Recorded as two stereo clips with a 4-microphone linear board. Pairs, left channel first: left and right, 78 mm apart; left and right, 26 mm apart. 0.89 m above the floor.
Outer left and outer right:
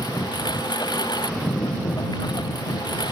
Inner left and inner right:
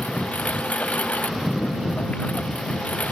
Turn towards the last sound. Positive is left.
turn(degrees=65)  # may be behind; listen again after turning